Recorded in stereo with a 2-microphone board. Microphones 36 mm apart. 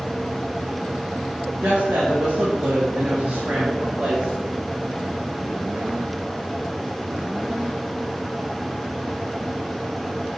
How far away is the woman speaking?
About 2.5 m.